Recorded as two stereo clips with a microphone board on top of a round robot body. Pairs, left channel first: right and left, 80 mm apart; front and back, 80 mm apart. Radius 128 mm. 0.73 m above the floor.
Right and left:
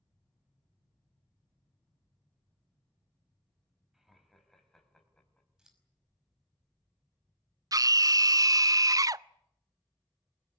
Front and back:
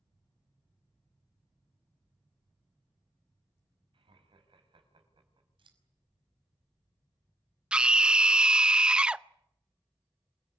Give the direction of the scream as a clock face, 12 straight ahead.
8 o'clock.